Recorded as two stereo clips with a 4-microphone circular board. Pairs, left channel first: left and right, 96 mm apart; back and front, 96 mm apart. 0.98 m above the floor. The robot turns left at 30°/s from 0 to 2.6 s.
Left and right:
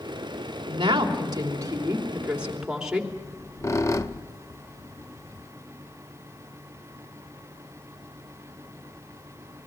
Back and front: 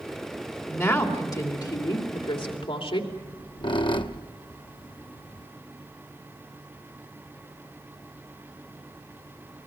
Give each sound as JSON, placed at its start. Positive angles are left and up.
{"t": 0.7, "sound": "a woman speaking", "azimuth_deg": -115, "distance_m": 3.0}
{"t": 3.1, "sound": "a squeak", "azimuth_deg": 150, "distance_m": 0.8}